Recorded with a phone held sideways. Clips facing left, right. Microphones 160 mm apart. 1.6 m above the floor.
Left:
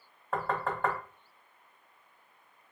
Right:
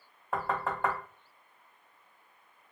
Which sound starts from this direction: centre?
Knocking, at 0.3 s.